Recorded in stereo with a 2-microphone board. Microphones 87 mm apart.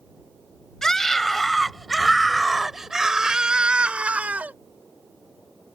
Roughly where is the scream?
Centre.